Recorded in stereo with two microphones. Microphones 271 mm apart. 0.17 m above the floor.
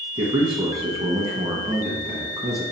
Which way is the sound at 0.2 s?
20° right (ahead or behind).